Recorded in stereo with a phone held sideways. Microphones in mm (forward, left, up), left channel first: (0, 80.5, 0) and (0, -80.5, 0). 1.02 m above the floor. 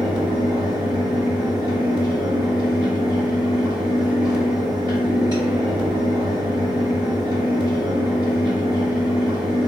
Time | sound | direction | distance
0.0 | a fan | 25° right (ahead or behind) | 1.0 m